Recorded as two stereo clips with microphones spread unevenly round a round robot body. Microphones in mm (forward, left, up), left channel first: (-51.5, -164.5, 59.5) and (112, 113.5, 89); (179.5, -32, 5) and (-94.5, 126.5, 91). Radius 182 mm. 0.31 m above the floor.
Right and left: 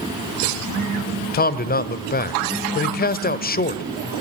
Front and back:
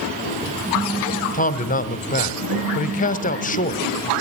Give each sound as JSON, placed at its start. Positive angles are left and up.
{"t": 1.3, "sound": "a man speaking", "azimuth_deg": -70, "distance_m": 1.3}